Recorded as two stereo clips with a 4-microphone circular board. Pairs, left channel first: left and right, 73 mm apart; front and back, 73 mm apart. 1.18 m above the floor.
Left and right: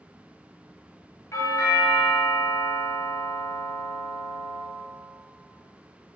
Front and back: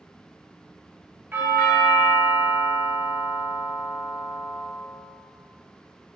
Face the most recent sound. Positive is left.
turn(degrees=125)